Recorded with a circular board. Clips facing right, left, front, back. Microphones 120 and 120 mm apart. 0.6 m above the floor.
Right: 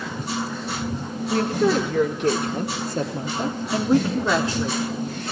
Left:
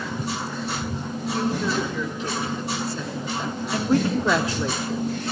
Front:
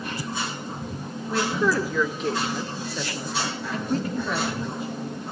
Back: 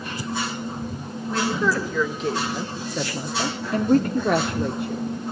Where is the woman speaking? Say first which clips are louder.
Right 5 dB, even; 80° right, 2 m; by 5.0 s 155° left, 1.5 m.